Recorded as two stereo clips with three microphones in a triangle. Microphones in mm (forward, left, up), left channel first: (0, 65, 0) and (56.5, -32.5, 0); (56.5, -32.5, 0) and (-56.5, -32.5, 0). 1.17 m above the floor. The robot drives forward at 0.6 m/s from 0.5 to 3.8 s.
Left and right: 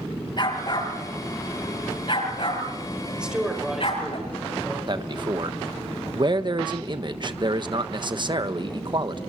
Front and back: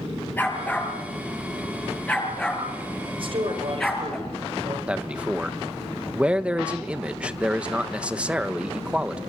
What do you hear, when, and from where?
0.4 s a dog barking: 75° left, 9 m; by 4.2 s 85° left, 9 m
3.2 s a man speaking: 140° right, 6 m; by 4.8 s 145° right, 6 m
4.9 s a man speaking: 100° right, 1.3 m